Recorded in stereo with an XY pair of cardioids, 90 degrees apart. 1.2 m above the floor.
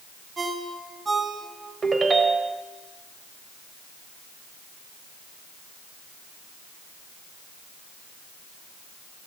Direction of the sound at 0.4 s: 35° right.